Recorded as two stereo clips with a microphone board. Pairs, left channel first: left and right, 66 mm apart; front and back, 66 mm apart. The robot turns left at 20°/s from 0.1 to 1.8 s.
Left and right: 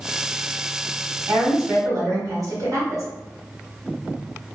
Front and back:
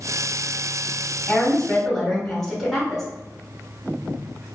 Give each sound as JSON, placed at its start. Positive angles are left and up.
{"t": 1.3, "sound": "a woman speaking", "azimuth_deg": -70, "distance_m": 1.3}